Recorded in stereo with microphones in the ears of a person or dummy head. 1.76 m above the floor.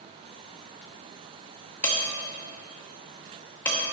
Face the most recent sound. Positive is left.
turn(degrees=10)  # may be behind; listen again after turning